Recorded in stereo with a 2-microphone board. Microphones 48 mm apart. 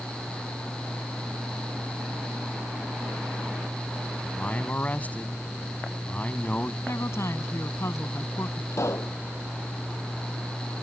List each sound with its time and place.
4.2 s a man speaking: 30° left (ahead or behind)
6.9 s a woman speaking: 65° left (ahead or behind)
8.7 s a pop: 75° left (ahead or behind)